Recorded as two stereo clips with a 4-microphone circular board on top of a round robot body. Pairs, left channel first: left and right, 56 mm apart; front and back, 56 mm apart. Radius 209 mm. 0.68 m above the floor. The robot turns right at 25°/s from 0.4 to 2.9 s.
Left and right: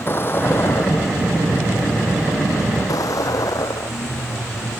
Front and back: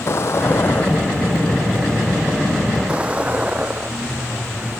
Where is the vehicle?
40° left; by 4.8 s 115° left.